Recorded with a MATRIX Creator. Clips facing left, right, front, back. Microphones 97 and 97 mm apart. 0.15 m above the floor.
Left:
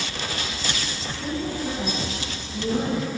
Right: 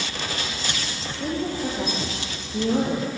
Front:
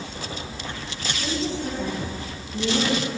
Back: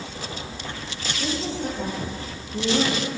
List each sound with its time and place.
1.2 s a woman speaking: 120° right, 8.5 m